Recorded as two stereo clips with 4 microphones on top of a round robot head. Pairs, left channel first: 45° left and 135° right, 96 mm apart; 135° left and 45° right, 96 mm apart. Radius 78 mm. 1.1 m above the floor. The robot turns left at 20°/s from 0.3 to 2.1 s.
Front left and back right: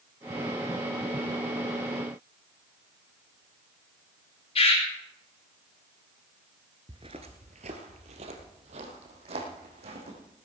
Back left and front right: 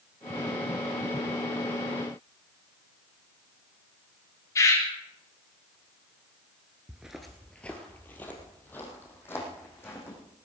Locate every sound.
4.5 s a bird: 75° left, 4 m
6.9 s footsteps: 110° right, 1.1 m; by 10.2 s 160° right, 4.5 m